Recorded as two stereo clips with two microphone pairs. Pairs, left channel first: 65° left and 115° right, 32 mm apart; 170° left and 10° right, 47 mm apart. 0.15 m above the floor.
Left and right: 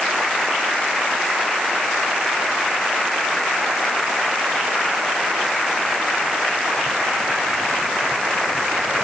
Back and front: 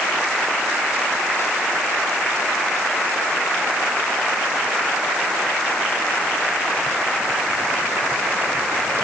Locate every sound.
Only background noise.